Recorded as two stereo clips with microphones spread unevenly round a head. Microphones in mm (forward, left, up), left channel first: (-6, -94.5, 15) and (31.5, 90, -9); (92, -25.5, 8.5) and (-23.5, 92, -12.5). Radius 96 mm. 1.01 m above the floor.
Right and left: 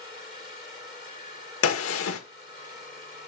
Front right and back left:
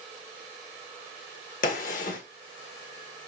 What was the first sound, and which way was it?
A gunshot, 95° right.